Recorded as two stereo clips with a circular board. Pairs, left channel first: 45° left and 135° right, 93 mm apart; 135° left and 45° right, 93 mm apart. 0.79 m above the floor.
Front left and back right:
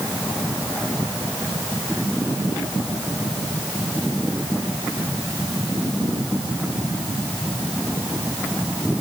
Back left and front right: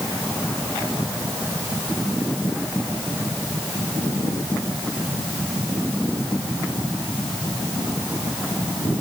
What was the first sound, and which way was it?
Only background noise.